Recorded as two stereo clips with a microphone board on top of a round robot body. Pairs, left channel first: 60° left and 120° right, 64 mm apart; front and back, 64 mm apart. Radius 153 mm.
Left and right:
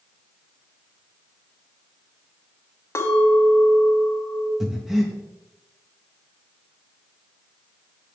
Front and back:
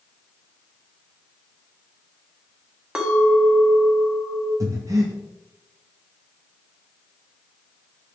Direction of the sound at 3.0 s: 105° left.